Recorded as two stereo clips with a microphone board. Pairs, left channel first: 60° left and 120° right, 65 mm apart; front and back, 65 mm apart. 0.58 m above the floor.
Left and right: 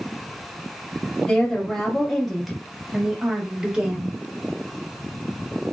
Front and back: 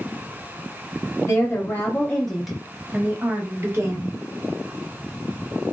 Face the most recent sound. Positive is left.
turn(degrees=170)